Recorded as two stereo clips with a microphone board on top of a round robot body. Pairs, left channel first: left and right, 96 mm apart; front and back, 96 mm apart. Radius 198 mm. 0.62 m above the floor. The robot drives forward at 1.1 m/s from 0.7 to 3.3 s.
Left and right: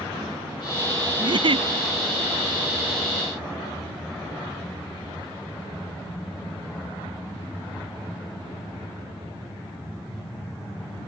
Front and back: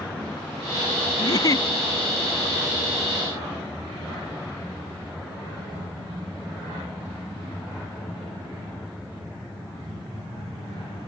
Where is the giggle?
50° right; by 1.7 s 60° right.